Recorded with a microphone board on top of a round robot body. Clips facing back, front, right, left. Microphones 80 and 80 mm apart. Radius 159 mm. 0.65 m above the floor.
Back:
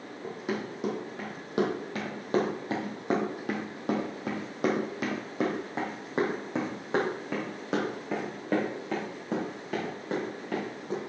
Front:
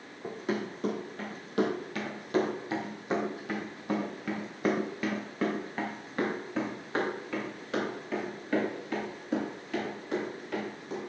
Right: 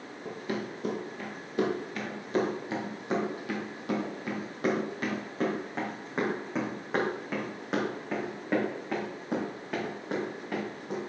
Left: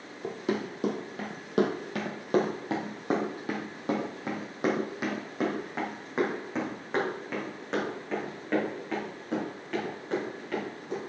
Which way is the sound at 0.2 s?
95° left.